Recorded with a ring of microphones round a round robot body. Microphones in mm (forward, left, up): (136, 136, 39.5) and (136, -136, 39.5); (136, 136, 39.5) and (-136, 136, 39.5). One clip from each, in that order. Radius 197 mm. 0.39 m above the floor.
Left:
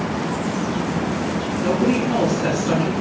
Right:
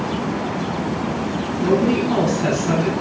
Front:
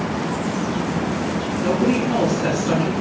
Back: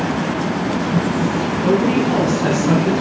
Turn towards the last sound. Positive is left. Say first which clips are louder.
# right 2 dB, back 3 dB
turn(degrees=-135)